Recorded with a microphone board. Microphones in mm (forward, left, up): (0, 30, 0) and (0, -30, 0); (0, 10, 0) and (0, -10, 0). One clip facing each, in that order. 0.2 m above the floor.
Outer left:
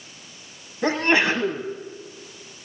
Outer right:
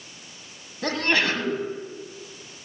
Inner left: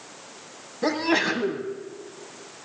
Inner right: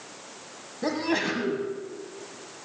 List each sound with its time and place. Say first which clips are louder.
0.8 s a sneeze: outer left 4 dB, inner left 4 dB; 20° left (ahead or behind), 1.2 m